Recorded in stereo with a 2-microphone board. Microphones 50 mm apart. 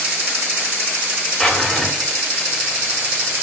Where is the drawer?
10° left (ahead or behind), 0.6 m.